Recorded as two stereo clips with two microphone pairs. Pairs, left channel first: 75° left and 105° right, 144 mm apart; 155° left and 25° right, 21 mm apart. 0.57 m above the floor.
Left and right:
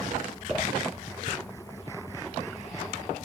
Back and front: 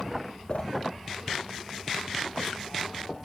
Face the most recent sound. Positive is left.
turn(degrees=165)